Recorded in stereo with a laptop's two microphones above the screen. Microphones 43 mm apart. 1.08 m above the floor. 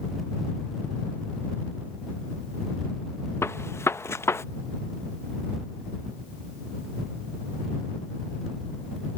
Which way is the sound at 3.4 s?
70° left (ahead or behind).